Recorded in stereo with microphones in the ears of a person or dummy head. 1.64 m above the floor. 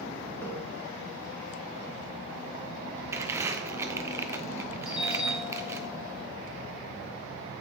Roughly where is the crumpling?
Centre.